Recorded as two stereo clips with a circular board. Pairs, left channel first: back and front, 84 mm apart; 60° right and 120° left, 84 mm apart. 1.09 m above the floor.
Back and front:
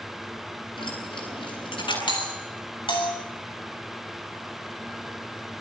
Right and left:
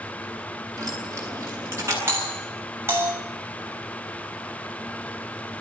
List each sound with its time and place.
0.8 s keys jangling: 175° left, 9.5 m; by 2.0 s straight behind, 9 m
2.1 s a doorbell: straight behind, 7.5 m